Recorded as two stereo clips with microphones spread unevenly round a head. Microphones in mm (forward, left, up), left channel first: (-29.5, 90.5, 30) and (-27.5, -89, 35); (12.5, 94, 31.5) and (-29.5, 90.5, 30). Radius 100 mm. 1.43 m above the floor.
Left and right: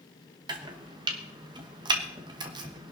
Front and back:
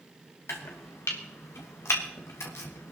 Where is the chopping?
20° right, 1.1 m.